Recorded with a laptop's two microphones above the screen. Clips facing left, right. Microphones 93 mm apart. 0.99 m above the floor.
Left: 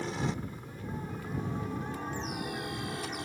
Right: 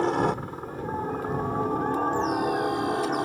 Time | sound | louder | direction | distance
0.0 | a helicopter | right 10 dB | 60° right (ahead or behind) | ?